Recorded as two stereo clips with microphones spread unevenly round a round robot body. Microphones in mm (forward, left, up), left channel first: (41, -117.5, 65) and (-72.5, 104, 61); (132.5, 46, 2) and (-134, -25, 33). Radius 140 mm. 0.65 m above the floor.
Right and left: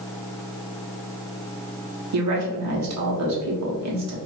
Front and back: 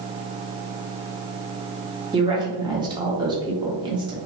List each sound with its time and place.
2.1 s a woman speaking: 120° left, 1.2 m